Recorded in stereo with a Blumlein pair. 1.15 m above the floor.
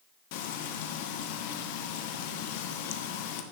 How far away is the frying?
About 1.1 m.